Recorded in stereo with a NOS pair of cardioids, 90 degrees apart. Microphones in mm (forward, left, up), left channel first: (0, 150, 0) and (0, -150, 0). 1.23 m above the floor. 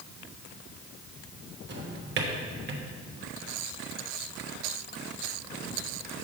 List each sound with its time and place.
1.7 s a drawer: 35° right, 1.2 m